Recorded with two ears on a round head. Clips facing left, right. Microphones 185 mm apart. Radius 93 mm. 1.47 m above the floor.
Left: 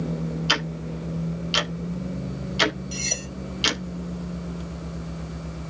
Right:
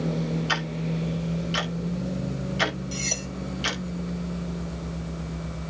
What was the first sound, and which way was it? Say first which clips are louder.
Ticking: right 1 dB; 50° left (ahead or behind).